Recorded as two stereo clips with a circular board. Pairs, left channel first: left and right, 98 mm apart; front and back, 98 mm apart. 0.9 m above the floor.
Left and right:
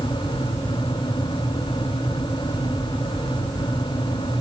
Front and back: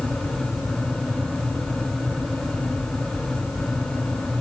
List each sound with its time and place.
Only background noise.